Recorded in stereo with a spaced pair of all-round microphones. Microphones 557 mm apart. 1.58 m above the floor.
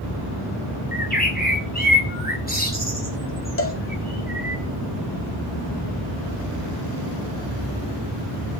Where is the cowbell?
25° left (ahead or behind), 2 m.